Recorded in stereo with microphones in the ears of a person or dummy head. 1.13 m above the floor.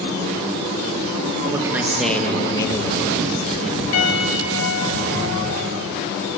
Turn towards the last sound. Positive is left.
turn(degrees=75)  # may be behind; listen again after turning